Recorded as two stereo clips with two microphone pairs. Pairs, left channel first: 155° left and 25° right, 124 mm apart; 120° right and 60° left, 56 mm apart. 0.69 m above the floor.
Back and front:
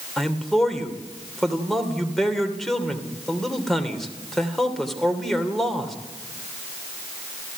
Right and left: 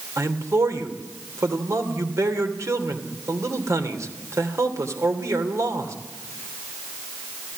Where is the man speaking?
70° left, 2.5 m.